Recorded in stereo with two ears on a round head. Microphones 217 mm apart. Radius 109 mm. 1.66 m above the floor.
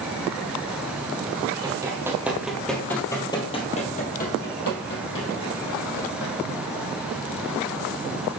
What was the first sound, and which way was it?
Running footsteps, 20° right (ahead or behind).